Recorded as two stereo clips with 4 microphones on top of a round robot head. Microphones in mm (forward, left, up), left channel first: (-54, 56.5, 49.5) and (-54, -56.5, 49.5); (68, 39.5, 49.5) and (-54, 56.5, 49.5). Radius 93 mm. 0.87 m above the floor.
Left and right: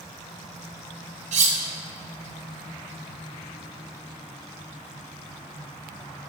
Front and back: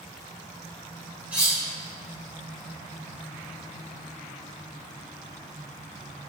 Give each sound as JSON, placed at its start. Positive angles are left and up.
{"t": 1.3, "sound": "cutlery clinking", "azimuth_deg": -105, "distance_m": 1.3}